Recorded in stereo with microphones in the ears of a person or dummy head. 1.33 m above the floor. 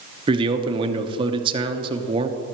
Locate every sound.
0.3 s a man speaking: 30° right (ahead or behind), 1.1 m